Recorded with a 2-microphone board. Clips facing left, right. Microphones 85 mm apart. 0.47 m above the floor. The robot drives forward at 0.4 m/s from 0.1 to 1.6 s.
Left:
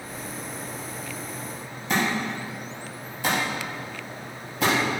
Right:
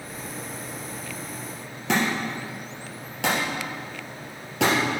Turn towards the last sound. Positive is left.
turn(degrees=-90)